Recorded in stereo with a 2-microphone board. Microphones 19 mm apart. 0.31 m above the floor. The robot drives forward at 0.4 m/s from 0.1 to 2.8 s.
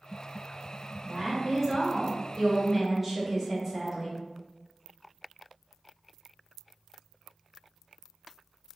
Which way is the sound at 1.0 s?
20° right (ahead or behind).